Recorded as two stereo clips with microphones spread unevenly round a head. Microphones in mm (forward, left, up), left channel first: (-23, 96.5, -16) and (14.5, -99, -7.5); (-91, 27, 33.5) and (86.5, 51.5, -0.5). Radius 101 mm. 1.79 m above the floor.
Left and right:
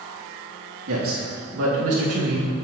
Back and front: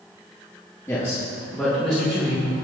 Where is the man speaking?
95° right, 3 m; by 2.5 s 80° right, 2.5 m.